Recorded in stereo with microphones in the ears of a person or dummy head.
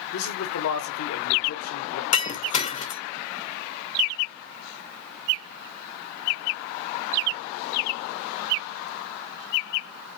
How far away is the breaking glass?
About 0.9 m.